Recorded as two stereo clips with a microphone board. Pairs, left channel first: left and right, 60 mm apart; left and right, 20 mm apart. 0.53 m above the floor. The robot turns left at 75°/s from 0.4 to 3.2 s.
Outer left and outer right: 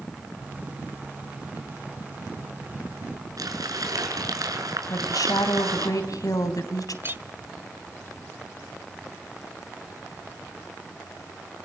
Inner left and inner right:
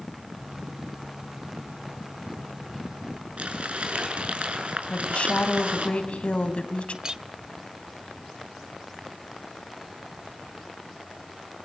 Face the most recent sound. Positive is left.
turn(degrees=-35)  # may be behind; listen again after turning